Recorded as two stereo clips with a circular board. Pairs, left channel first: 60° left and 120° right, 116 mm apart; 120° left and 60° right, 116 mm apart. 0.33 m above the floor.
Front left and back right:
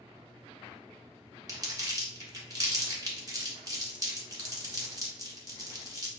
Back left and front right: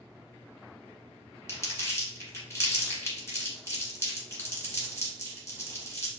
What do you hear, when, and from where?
1.5 s crumpling: 175° right, 1.4 m